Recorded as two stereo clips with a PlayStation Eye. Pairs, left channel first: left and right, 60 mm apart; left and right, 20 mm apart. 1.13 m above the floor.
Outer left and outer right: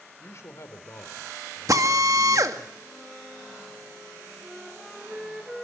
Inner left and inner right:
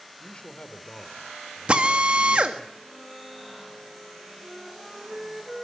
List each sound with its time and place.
0.2 s a man speaking: 50° left (ahead or behind), 3.5 m
1.7 s a drill: 70° right (ahead or behind), 2 m
4.4 s a flute: 5° right (ahead or behind), 3 m